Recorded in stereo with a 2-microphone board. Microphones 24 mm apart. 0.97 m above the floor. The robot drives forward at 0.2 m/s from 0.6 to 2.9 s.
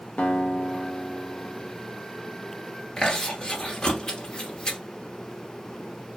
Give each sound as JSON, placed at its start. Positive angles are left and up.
{"t": 0.2, "sound": "a guitar", "side_deg": 75, "distance_m": 0.6}
{"t": 3.0, "sound": "chewing", "side_deg": 35, "distance_m": 1.1}